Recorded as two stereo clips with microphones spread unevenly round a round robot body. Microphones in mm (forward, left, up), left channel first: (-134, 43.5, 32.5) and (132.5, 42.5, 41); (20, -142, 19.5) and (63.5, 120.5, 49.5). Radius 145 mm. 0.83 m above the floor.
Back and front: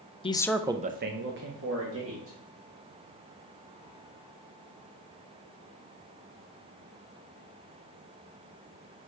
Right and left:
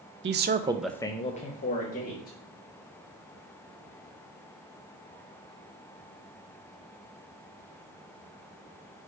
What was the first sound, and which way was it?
A man speaking, 120° left.